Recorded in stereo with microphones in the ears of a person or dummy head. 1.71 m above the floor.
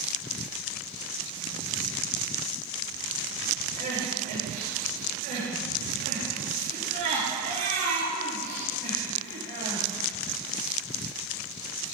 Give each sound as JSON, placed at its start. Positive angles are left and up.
{"t": 3.8, "sound": "crying", "side_deg": -50, "distance_m": 4.0}